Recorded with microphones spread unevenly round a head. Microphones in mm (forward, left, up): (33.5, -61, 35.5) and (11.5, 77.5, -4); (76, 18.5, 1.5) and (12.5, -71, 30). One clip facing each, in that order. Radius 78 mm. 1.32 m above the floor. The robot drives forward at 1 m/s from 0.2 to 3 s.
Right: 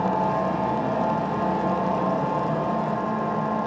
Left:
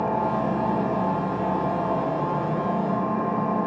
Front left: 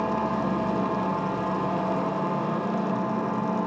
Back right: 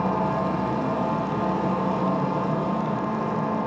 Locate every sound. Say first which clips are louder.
0.0 s an engine running: right 1 dB, back right 2 dB; 160° right, 6.5 m; by 3.7 s 165° right, 9.5 m